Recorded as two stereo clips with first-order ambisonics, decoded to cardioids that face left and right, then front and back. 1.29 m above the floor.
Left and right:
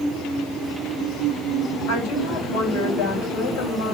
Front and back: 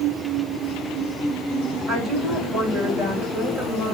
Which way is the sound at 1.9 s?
80° left.